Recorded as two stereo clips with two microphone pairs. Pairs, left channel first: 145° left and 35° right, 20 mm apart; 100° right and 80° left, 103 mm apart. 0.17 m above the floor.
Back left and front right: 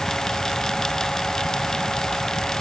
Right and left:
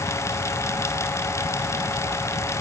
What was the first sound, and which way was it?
Only background noise.